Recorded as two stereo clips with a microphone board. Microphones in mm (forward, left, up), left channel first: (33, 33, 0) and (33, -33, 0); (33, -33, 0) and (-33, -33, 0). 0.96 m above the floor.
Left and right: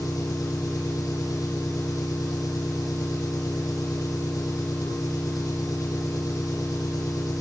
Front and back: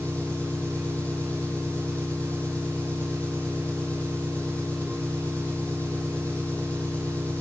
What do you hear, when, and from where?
0.0 s an engine running: 70° left, 9.5 m